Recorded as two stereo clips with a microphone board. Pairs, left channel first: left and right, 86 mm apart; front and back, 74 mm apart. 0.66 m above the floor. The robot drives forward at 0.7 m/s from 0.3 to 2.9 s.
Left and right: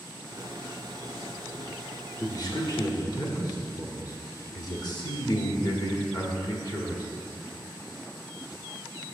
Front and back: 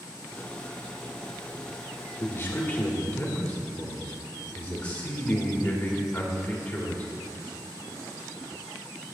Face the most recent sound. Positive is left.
turn(degrees=70)